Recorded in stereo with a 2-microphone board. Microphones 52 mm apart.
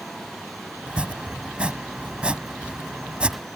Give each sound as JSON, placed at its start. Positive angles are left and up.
{"t": 0.9, "sound": "chopping", "side_deg": -20}